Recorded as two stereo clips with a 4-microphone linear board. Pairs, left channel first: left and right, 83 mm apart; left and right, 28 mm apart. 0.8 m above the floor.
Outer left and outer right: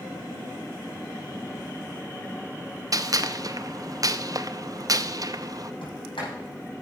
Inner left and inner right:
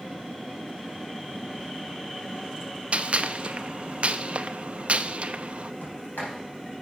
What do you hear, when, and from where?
2.9 s a gunshot: 45° right (ahead or behind), 0.5 m
5.8 s a sliding door: 80° left, 7 m